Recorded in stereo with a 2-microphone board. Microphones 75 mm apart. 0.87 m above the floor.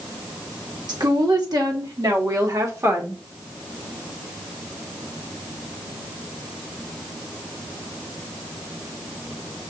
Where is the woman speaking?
75° right (ahead or behind), 2 m; by 3.2 s 30° right (ahead or behind), 1.3 m.